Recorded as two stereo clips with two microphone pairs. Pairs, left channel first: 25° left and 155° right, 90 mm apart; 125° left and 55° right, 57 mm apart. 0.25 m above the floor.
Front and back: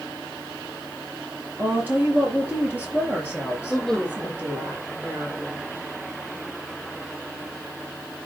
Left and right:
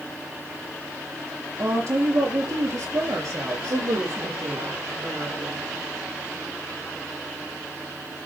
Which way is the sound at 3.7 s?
60° right.